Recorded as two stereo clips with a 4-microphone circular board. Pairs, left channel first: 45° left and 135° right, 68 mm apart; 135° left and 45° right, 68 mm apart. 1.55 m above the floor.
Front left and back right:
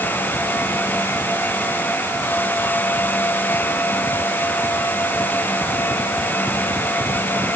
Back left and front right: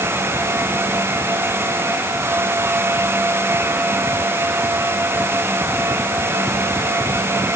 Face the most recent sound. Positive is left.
No sound to turn to.